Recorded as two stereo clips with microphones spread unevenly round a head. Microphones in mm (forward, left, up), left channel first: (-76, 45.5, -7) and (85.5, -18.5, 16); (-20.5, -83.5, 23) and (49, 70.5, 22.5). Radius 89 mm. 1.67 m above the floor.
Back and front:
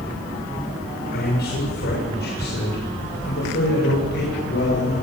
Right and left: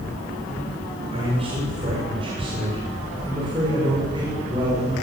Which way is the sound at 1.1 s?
125° left.